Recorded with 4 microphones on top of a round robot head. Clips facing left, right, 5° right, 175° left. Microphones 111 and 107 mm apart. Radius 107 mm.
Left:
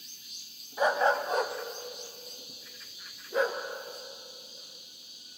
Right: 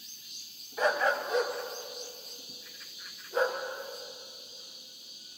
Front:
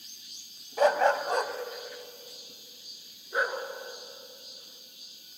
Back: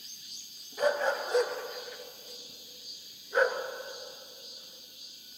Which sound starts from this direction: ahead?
A dog barking, at 0.8 s.